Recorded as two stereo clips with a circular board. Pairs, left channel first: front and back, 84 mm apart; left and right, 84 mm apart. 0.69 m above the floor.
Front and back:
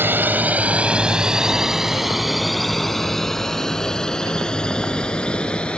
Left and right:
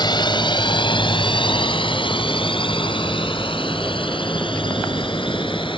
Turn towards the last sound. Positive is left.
turn(degrees=80)